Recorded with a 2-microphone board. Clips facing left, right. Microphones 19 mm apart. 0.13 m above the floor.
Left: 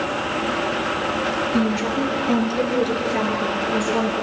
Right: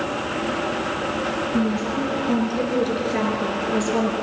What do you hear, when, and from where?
1.5 s a woman speaking: 50° left (ahead or behind), 2.5 m; by 4.1 s 25° right (ahead or behind), 3 m